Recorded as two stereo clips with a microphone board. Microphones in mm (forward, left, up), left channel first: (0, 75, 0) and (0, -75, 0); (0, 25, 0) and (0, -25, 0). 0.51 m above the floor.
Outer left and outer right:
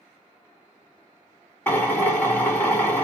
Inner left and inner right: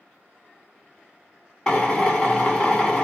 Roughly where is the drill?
Centre.